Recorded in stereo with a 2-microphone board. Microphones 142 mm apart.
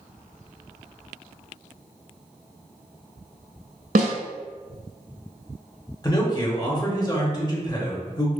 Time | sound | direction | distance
4.0 | a snare drum | 80° right | 0.6 m
6.0 | a man speaking | 30° left (ahead or behind) | 0.9 m